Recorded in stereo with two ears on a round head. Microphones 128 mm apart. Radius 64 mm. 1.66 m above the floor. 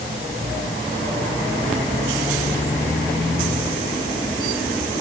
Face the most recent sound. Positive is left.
No sound to turn to.